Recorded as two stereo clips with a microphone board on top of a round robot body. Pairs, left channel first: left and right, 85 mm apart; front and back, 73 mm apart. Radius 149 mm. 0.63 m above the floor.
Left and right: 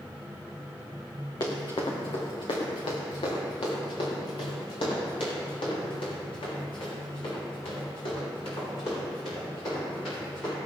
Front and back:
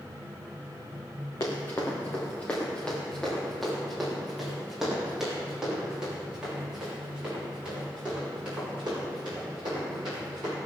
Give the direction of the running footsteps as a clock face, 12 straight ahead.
10 o'clock.